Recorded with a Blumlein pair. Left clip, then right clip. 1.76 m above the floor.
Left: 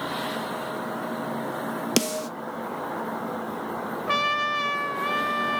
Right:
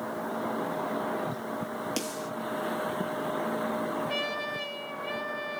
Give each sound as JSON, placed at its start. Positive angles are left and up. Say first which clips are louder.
{"t": 2.0, "sound": "a snare drum", "louder": "left 8 dB", "azimuth_deg": 30, "distance_m": 0.7}
{"t": 4.1, "sound": "a trumpet", "louder": "left 8 dB", "azimuth_deg": 45, "distance_m": 1.0}